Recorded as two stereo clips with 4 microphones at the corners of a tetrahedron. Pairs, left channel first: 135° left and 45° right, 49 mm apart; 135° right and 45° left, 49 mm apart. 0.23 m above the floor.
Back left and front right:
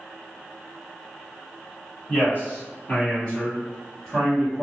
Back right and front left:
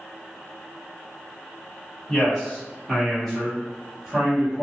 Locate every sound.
2.1 s a man speaking: 165° left, 1.9 m; by 4.6 s 50° left, 1.6 m